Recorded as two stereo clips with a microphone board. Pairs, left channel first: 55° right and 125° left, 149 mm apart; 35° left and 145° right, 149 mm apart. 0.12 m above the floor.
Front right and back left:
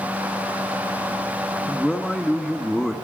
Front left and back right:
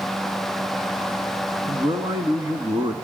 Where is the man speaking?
140° right, 1.7 m.